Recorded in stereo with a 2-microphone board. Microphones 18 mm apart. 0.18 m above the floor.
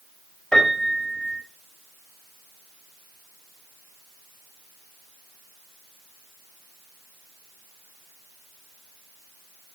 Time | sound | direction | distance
0.5 | a piano | 55° left (ahead or behind) | 3.5 m